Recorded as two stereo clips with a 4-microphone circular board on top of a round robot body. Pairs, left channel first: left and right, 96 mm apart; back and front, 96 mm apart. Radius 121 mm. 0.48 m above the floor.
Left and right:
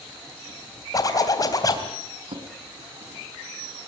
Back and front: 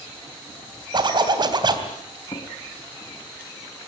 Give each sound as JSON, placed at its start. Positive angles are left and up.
{"t": 0.9, "sound": "a zipper", "azimuth_deg": 40, "distance_m": 3.0}
{"t": 2.3, "sound": "a drawer", "azimuth_deg": -125, "distance_m": 2.5}